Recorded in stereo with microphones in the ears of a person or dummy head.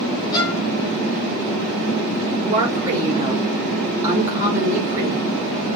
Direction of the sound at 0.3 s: 20° left (ahead or behind).